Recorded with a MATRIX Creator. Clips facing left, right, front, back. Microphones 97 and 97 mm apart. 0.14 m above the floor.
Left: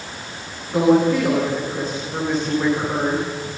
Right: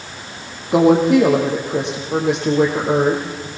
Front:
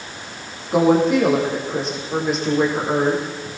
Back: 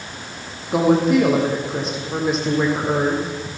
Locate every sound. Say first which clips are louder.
0.7 s a woman speaking: right 3 dB, even; 90° right, 5.5 m